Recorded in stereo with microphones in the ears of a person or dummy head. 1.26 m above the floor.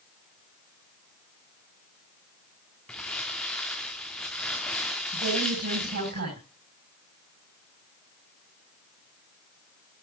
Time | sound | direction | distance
2.9 | crumpling | centre (ahead or behind) | 1.1 m
5.1 | a woman speaking | 60° right (ahead or behind) | 7.5 m